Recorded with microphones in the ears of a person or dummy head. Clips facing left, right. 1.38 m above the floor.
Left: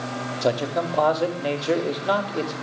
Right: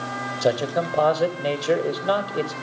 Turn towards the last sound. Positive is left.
turn(degrees=-10)  # may be behind; listen again after turning